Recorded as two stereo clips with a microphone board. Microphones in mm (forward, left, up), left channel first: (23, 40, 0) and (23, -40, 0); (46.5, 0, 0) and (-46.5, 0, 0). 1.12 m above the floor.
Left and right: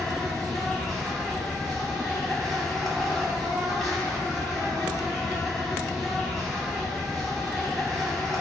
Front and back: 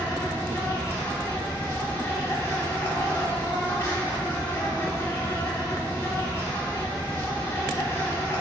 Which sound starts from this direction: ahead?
An insect, at 0.0 s.